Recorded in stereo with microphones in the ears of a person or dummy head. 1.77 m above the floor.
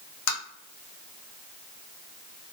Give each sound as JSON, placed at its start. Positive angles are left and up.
{"t": 0.3, "sound": "tapping", "side_deg": 75, "distance_m": 1.3}